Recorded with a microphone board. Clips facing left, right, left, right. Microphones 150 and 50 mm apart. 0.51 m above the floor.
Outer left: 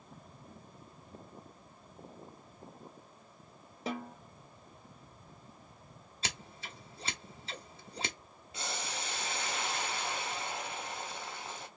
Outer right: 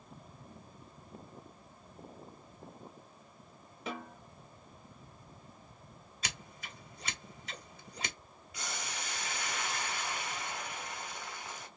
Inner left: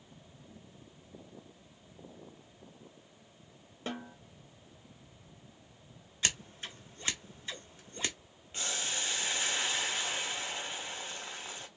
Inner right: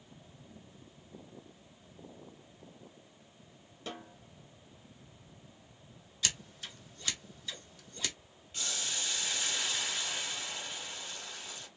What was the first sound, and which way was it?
A snare drum, 35° left (ahead or behind).